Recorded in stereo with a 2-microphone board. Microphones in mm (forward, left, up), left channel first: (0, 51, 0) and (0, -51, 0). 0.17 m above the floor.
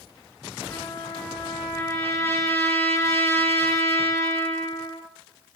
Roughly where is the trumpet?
Left.